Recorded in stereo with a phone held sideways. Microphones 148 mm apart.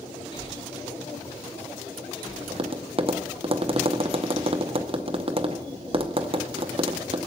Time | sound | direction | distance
0.3 | breathing | 35° left (ahead or behind) | 1.1 m
2.5 | tapping | 40° right (ahead or behind) | 0.7 m